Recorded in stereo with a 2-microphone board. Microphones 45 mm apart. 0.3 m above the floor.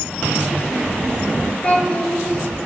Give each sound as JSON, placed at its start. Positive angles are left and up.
{"t": 1.6, "sound": "a child speaking", "side_deg": 25, "distance_m": 3.0}